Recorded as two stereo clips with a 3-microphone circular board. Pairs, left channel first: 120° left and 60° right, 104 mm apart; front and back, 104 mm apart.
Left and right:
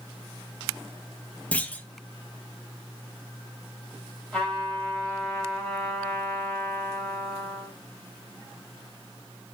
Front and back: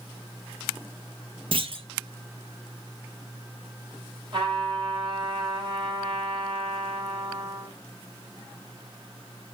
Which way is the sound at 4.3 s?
160° right.